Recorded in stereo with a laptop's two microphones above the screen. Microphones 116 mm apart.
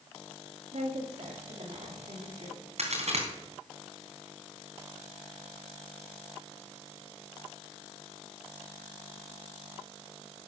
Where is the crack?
70° right (ahead or behind), 3 m.